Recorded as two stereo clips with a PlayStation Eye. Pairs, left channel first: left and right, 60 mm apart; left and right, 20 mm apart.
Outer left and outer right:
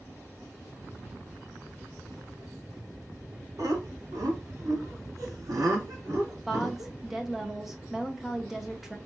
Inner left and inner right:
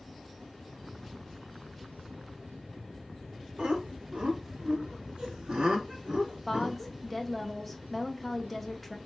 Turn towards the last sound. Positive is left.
turn(degrees=-5)  # may be behind; listen again after turning